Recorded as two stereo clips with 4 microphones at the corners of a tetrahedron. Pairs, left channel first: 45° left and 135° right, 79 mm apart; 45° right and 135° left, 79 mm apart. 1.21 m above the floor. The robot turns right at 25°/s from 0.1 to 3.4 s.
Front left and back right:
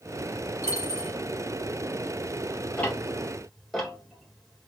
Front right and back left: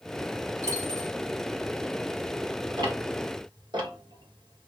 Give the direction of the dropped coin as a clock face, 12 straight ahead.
9 o'clock.